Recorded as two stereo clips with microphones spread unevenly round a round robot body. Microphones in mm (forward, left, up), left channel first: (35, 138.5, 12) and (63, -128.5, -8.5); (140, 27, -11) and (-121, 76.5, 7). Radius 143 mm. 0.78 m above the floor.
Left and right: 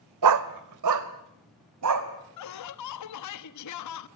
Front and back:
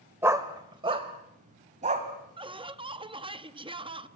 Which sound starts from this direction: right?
A dog barking, at 0.2 s.